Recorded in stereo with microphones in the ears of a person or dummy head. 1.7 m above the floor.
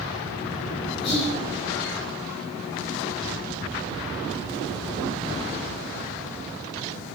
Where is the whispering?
30° left (ahead or behind), 1.6 m.